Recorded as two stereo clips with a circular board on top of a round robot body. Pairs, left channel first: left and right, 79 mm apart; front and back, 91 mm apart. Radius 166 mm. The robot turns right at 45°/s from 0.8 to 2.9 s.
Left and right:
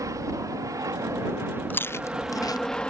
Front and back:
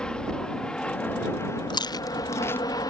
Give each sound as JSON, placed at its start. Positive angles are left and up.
{"t": 0.0, "sound": "an aircraft", "azimuth_deg": -75}
{"t": 1.7, "sound": "chewing", "azimuth_deg": 25}